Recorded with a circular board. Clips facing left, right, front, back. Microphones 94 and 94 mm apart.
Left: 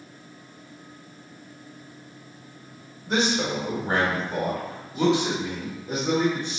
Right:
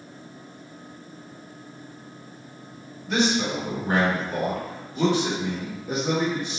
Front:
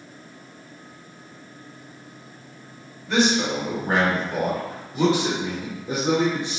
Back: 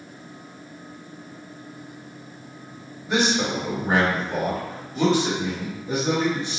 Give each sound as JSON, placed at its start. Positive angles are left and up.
{"t": 3.1, "sound": "a man speaking", "azimuth_deg": 110, "distance_m": 1.6}